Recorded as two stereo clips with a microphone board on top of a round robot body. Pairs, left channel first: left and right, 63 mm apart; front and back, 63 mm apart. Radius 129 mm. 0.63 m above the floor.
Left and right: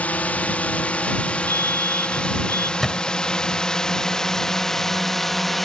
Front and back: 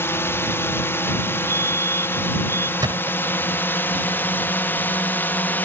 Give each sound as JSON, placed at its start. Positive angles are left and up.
{"t": 0.0, "sound": "a drone", "azimuth_deg": 30}
{"t": 1.5, "sound": "a fire alarm", "azimuth_deg": 140}
{"t": 2.8, "sound": "a thud", "azimuth_deg": 175}